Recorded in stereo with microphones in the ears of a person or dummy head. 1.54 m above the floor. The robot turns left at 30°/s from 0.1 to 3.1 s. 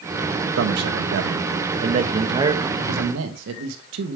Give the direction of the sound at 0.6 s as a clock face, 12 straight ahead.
3 o'clock.